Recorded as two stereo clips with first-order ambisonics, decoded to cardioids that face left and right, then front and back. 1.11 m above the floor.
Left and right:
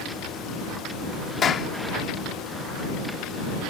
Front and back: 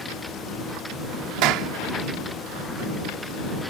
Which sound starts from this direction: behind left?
A clap, at 1.4 s.